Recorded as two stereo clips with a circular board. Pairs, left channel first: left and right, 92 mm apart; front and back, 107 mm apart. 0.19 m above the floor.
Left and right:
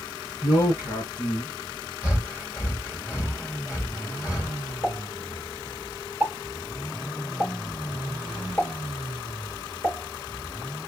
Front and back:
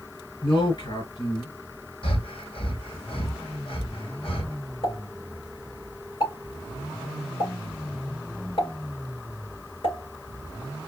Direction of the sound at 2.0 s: 30° left.